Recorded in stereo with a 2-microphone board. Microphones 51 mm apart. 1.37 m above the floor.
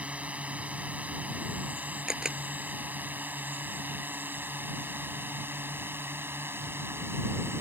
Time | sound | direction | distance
0.0 | a drone | 25° right (ahead or behind) | ?
2.1 | a camera shutter | 15° right (ahead or behind) | ?